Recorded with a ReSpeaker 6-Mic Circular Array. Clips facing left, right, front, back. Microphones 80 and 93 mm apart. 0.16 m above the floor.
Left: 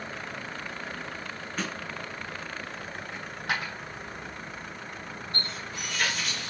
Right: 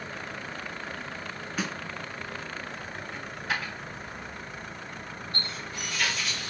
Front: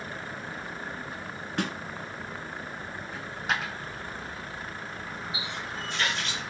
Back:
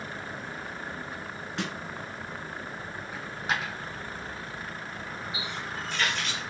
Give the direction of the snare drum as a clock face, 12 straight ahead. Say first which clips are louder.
Right 1 dB, front 4 dB; 12 o'clock.